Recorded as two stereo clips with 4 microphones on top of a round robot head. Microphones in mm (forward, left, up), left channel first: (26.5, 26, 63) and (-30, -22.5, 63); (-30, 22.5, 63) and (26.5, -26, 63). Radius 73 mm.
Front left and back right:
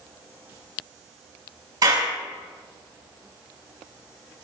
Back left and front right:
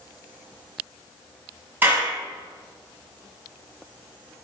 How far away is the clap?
About 5.5 m.